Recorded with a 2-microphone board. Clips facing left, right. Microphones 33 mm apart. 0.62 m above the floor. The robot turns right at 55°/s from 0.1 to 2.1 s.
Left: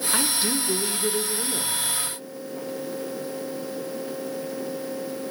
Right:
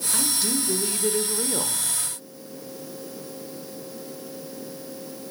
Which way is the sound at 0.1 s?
135° left.